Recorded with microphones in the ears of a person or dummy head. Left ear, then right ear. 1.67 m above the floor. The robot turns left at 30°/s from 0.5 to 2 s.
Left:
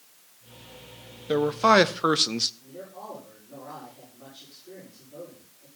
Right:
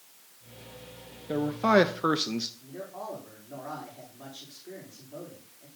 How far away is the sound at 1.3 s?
About 0.6 m.